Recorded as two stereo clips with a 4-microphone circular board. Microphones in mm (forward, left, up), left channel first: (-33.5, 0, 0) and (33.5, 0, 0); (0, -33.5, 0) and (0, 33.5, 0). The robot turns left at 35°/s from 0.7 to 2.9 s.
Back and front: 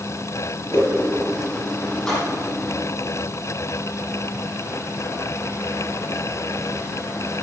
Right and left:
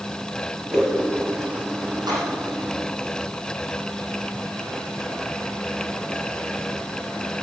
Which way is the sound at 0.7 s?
175° left.